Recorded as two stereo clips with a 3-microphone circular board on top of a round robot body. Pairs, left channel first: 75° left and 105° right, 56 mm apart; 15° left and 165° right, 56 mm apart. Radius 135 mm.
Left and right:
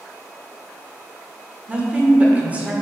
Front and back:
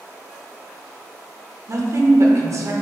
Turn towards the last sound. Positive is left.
turn(degrees=-170)